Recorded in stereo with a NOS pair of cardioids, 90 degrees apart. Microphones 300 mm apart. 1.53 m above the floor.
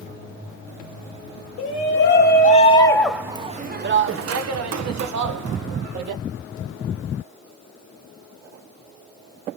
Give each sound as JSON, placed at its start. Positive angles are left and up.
{"t": 1.6, "sound": "a shout", "azimuth_deg": 45, "distance_m": 1.3}